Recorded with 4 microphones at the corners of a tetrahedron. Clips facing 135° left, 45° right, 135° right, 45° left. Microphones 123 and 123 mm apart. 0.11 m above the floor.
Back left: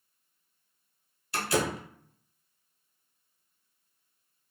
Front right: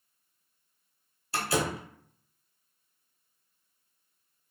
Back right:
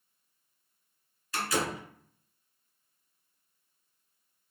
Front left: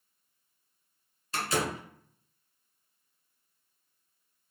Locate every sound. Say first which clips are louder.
1.3 s a door slam: back left 1 dB, even; straight ahead, 1.1 m